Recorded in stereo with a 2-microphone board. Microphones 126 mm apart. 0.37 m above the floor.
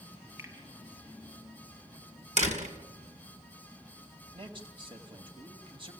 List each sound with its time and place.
0.4 s a finger snap: 25° right (ahead or behind), 6 m
2.4 s a door slam: 65° right (ahead or behind), 2.5 m
4.3 s a man speaking: 40° right (ahead or behind), 2.5 m